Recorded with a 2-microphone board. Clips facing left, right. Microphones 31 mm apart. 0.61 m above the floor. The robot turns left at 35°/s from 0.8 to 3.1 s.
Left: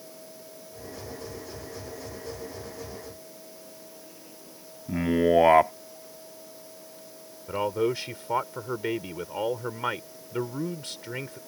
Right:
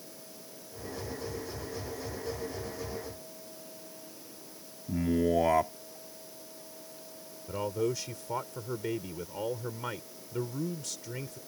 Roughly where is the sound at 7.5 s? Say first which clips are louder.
Left 5 dB; left.